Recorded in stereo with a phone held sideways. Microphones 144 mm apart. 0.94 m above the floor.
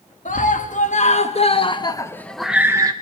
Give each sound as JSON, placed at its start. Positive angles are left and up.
{"t": 0.2, "sound": "a scream", "side_deg": 65, "distance_m": 2.0}